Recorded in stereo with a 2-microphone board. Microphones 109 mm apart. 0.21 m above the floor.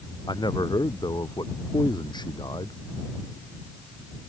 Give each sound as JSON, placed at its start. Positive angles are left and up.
{"t": 0.3, "sound": "a man speaking", "side_deg": 40}